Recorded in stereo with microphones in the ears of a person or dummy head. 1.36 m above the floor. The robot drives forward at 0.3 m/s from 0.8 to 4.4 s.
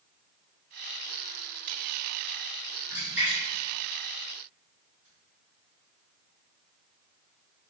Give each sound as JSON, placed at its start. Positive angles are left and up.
{"t": 2.9, "sound": "a splash", "side_deg": -10, "distance_m": 1.1}